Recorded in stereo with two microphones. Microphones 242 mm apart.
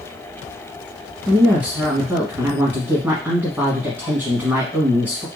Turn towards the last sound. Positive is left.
turn(degrees=-5)  # may be behind; listen again after turning